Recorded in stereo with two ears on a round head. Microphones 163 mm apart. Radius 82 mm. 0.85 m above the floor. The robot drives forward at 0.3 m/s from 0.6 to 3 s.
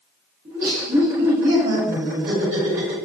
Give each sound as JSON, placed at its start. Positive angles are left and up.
{"t": 0.5, "sound": "laughter", "side_deg": -50, "distance_m": 1.1}